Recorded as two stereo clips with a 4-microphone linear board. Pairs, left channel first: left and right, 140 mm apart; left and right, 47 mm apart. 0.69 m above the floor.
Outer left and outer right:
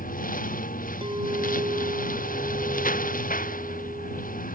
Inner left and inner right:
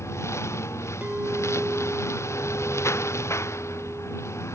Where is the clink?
40° right (ahead or behind).